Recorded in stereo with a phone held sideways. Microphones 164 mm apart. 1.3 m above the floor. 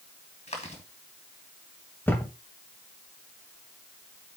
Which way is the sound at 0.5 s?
45° left (ahead or behind).